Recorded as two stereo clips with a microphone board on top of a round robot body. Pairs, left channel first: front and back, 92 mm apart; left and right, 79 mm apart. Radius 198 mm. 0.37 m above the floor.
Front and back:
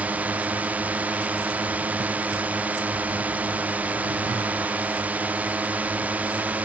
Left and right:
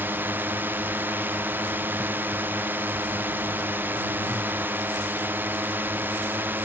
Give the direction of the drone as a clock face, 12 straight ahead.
4 o'clock.